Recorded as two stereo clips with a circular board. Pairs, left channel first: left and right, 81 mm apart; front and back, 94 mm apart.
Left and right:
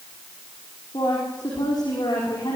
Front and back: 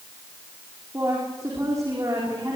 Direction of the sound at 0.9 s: 125° left.